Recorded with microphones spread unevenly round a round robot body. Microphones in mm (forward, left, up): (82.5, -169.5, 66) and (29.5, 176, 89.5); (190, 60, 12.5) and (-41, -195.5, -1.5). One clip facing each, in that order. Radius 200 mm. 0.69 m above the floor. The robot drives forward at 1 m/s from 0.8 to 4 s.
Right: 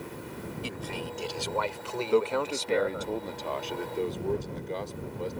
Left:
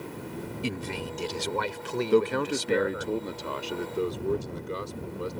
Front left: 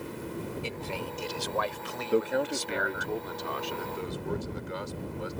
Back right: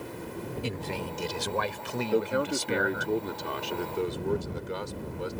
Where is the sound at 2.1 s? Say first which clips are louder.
Left 2 dB, even; 125° left; by 5.3 s 175° left.